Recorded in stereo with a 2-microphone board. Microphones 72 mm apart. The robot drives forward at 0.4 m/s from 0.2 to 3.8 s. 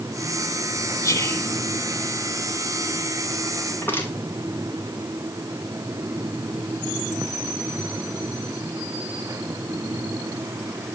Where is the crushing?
25° left (ahead or behind), 4 m.